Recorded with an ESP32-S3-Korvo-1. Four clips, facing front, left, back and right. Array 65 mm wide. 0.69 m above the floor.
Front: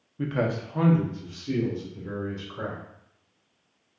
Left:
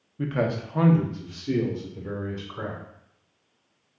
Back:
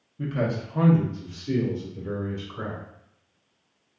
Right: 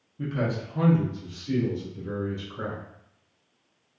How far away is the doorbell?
No doorbell in this recording.